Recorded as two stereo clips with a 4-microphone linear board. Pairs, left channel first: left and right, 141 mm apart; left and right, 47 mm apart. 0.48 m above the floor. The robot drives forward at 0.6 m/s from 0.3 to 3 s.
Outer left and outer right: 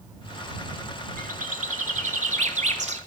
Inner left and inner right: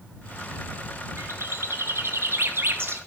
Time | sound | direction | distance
1.2 | a bird | 80° right | 2.5 m